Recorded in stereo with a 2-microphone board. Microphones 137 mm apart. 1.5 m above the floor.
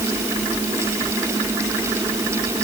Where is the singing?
No singing in this recording.